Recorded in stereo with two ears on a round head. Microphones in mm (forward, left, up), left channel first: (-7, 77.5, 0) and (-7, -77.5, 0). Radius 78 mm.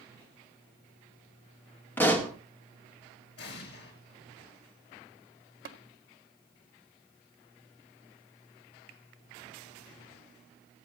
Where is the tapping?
55° right (ahead or behind), 1.7 m.